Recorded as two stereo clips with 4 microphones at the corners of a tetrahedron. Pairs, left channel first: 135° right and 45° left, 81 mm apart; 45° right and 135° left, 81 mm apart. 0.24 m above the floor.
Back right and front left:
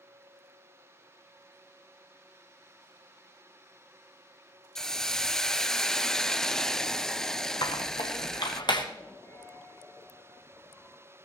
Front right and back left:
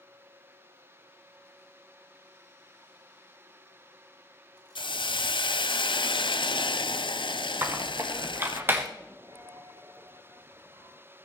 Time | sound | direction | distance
4.8 | a hiss | 55° right | 0.6 m
7.6 | a squeak | 165° right | 1.6 m
9.2 | a dropped coin | 165° left | 2 m